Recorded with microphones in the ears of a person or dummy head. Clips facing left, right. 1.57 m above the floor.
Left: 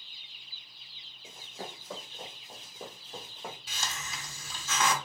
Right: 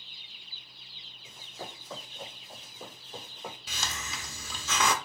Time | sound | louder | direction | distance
1.2 | running footsteps | left 1 dB | 35° left (ahead or behind) | 3 m
3.7 | a hiss | right 1 dB | 60° right (ahead or behind) | 0.8 m